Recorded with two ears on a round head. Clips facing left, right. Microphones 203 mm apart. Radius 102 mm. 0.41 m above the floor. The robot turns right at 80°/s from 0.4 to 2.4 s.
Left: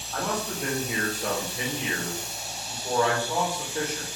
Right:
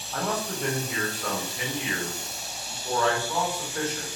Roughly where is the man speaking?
Centre.